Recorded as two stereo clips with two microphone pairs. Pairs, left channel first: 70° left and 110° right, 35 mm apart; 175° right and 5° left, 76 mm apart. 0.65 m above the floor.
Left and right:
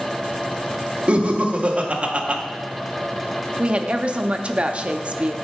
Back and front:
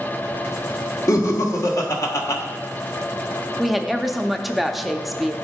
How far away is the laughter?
About 1.2 m.